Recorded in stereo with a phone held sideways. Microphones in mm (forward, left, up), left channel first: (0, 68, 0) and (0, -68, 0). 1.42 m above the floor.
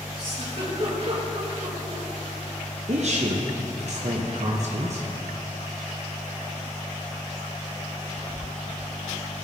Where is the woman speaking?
55° right (ahead or behind), 0.8 m.